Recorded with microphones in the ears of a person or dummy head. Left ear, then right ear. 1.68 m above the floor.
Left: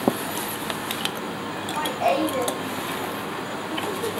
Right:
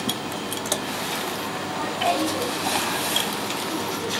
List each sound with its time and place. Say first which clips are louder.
1.6 s laughter: left 3 dB; 60° left (ahead or behind), 2.5 m